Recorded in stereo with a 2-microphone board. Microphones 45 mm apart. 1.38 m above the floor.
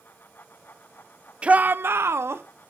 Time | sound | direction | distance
1.4 | a shout | 25° right (ahead or behind) | 0.6 m